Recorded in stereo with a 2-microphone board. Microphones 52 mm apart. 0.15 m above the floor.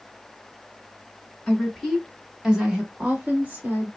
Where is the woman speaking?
10° left (ahead or behind), 1.4 m; by 3.9 s 35° right (ahead or behind), 1.5 m.